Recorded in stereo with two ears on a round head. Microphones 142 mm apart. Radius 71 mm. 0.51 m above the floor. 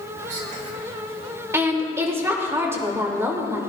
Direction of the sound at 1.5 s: 15° right (ahead or behind).